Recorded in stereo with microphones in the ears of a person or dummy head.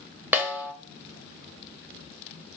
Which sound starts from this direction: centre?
A snare drum, at 0.3 s.